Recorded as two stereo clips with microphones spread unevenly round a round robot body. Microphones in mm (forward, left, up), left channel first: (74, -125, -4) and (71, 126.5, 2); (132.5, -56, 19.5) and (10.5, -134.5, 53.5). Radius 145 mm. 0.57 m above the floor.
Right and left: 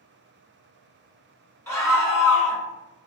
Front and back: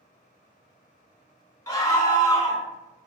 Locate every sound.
1.7 s a scream: 15° right, 1.5 m